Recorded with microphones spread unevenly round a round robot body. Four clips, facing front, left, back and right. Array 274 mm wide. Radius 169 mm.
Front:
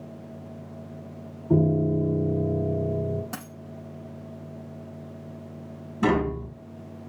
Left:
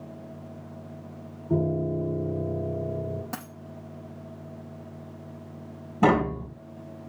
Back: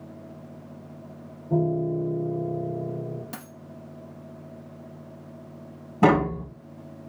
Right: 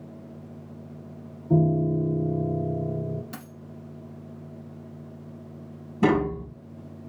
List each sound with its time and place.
1.5 s a piano: 35° right, 1.1 m
3.3 s a dropped coin: 85° left, 5 m
6.0 s tapping: 140° left, 2.5 m